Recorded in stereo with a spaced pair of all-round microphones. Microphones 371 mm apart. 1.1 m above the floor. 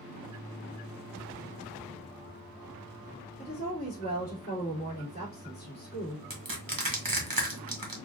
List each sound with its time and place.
3.4 s a woman speaking: 25° left (ahead or behind), 2 m
6.3 s crushing: 65° right (ahead or behind), 1.1 m